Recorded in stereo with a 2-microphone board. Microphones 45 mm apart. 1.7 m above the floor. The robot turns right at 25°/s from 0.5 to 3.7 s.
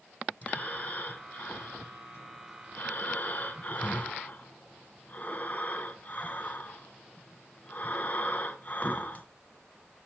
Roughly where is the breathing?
Ahead left.